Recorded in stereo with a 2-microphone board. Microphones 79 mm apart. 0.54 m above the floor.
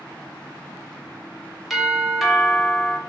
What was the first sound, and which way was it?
A doorbell, centre (ahead or behind).